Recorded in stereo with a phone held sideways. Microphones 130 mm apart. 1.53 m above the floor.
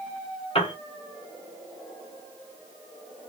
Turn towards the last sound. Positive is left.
turn(degrees=45)  # may be behind; listen again after turning